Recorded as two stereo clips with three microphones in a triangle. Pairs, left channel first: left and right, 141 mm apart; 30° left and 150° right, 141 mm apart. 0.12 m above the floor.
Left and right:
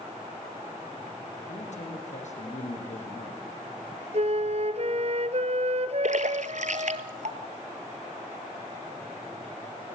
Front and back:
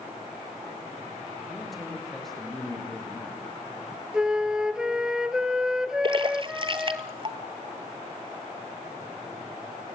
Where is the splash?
100° right, 1.2 m.